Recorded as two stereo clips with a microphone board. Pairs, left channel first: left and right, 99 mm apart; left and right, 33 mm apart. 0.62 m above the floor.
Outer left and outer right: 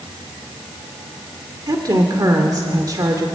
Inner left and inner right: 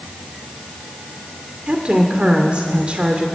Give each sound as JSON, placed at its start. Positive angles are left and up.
{"t": 1.7, "sound": "a woman speaking", "side_deg": -35, "distance_m": 1.9}